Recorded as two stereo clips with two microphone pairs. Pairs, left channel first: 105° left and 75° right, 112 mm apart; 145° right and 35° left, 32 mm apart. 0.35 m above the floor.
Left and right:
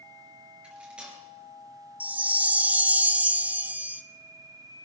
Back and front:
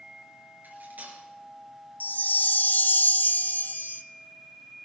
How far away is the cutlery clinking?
About 4 m.